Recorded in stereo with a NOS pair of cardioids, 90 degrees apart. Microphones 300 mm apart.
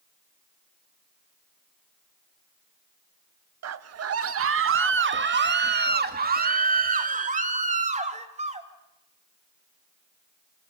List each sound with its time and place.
3.6 s a scream: 60° right, 1.6 m; by 8.7 s 20° right, 4.5 m